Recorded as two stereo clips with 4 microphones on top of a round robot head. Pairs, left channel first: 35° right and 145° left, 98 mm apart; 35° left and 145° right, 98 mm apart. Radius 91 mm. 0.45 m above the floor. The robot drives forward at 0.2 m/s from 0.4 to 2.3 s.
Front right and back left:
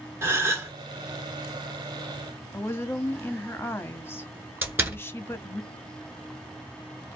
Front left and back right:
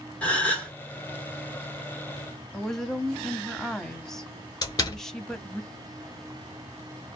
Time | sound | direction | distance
0.2 | a gasp | 100° left | 1.7 m
2.5 | a woman speaking | 45° right | 0.7 m
4.6 | a door slam | 80° left | 1.2 m